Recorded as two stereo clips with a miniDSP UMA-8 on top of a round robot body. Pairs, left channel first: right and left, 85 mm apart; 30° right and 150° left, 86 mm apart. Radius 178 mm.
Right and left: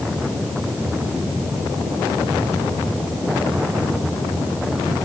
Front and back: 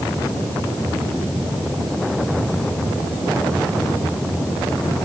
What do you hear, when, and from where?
Only background noise.